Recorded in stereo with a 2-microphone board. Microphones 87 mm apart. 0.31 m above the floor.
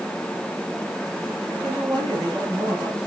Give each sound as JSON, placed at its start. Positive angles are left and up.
{"t": 1.6, "sound": "a woman speaking", "side_deg": -45, "distance_m": 8.5}